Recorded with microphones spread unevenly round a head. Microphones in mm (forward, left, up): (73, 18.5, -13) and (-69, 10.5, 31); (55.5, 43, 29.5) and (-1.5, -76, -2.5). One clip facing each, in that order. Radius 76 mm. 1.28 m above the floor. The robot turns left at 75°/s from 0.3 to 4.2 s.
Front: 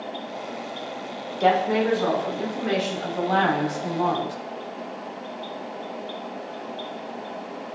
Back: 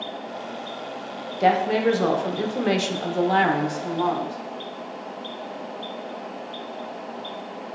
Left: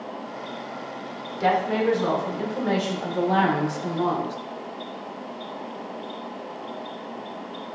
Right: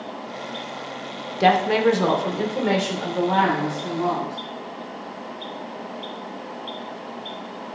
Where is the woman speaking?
95° right, 0.6 m; by 4.4 s 55° left, 0.6 m.